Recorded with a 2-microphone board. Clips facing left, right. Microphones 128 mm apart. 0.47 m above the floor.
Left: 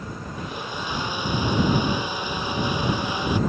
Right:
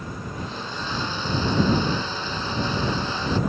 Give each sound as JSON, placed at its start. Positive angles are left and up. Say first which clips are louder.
{"t": 0.4, "sound": "a blender", "louder": "left 2 dB", "side_deg": 15}